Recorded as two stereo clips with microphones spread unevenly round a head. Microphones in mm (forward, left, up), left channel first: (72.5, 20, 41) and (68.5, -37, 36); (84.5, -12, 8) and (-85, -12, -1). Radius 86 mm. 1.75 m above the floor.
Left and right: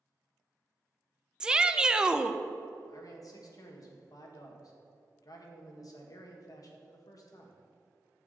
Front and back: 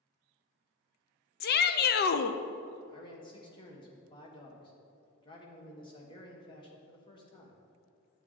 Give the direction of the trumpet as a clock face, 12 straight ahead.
No trumpet in this recording.